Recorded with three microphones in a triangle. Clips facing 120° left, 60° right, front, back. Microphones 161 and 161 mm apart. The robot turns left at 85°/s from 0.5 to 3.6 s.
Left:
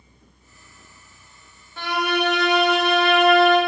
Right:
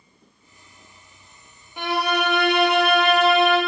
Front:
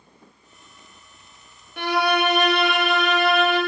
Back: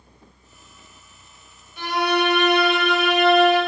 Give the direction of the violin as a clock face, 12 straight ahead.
12 o'clock.